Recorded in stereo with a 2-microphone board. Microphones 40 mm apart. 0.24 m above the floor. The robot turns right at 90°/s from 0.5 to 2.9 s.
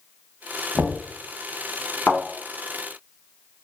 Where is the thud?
65° left (ahead or behind), 1.0 m.